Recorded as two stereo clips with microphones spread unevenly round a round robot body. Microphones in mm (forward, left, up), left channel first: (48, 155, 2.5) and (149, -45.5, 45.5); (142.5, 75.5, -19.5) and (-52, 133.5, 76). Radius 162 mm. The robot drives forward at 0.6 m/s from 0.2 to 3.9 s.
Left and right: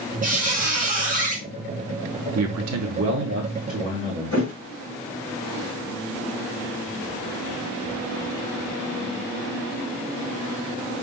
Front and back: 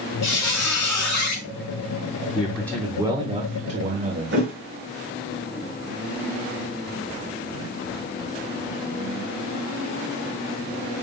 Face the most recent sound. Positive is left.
turn(degrees=175)